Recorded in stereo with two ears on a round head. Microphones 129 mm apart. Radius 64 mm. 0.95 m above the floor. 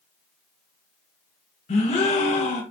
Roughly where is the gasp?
Left.